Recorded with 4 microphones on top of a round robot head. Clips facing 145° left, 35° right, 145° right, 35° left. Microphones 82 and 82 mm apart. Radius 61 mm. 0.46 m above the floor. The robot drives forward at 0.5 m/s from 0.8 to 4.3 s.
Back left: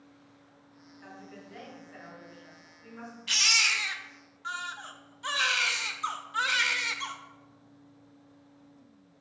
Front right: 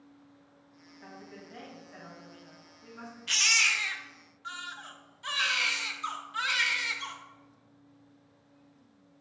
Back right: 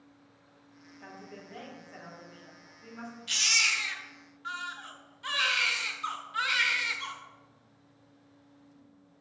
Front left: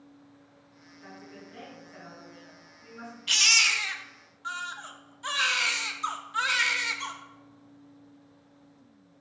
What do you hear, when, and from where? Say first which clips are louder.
1.0 s a woman speaking: even, even; 110° right, 3.5 m; by 3.1 s 125° right, 4 m
3.3 s a baby crying: even, front left 4 dB; 55° left, 0.9 m; by 7.1 s 95° left, 0.8 m